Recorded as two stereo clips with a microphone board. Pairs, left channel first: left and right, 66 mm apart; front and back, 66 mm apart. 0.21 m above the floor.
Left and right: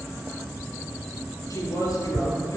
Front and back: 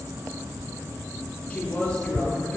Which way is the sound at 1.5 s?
70° left.